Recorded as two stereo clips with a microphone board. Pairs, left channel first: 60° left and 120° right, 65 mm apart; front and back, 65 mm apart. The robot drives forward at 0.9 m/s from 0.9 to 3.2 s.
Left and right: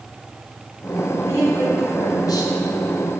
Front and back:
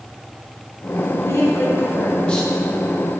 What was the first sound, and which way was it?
A woman speaking, 35° left.